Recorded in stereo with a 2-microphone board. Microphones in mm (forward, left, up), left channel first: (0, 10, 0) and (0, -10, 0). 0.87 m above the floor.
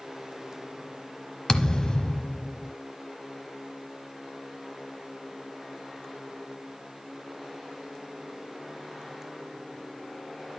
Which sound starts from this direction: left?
A thud, at 1.5 s.